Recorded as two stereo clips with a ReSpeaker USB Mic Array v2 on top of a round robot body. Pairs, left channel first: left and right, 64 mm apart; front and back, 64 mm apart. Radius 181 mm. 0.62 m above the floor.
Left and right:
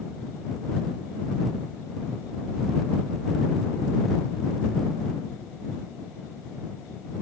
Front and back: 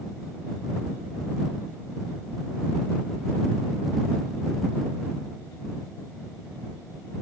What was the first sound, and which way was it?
Only background noise.